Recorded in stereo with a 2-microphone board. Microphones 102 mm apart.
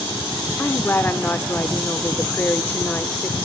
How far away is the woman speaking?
About 0.9 m.